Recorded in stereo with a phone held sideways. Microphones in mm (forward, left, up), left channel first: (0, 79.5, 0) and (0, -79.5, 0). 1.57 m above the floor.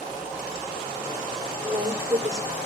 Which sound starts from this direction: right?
A woman speaking, at 1.6 s.